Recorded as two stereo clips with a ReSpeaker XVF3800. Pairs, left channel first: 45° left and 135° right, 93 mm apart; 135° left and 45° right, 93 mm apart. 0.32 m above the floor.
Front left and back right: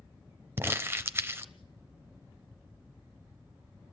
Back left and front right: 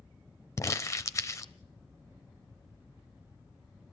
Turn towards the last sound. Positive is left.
turn(degrees=175)